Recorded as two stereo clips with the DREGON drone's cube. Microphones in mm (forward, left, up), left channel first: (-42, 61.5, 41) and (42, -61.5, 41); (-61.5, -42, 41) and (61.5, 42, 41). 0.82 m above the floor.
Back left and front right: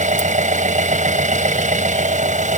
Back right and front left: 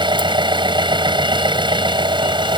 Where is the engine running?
25° right.